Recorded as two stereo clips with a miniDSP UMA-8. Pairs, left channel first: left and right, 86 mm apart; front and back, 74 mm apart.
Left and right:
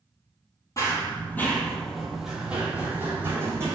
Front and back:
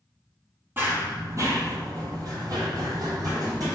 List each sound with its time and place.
0.8 s running footsteps: 125° left, 1.1 m; by 3.8 s 145° right, 1.8 m